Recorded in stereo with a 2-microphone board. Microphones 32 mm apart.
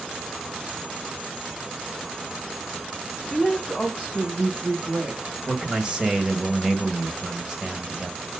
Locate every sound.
3.3 s a woman speaking: 10° left (ahead or behind), 1.8 m; by 5.4 s 45° right (ahead or behind), 1.6 m
5.5 s a man speaking: 25° right (ahead or behind), 1.2 m